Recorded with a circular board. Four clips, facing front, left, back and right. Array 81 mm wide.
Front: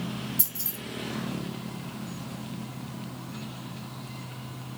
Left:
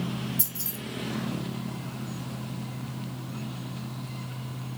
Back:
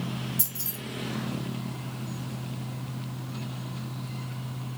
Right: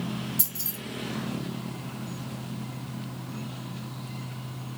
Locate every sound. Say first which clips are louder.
0.4 s keys jangling: left 1 dB, back 1 dB; 80° right, 2.5 m